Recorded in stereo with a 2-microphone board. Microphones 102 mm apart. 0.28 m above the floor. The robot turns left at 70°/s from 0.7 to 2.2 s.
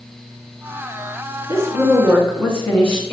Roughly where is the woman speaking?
Behind right.